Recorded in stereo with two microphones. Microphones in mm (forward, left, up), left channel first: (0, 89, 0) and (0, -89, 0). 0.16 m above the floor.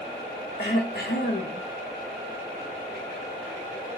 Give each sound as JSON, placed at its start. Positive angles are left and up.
{"t": 0.6, "sound": "throat clearing", "side_deg": 60, "distance_m": 2.5}